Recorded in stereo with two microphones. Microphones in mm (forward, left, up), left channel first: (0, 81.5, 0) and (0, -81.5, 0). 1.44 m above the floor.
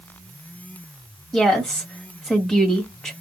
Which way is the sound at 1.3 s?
5° left (ahead or behind).